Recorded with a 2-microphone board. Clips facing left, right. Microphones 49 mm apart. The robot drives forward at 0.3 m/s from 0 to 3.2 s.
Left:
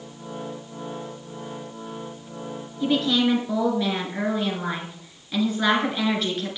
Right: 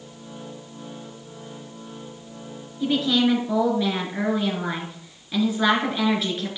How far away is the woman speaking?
About 3.5 m.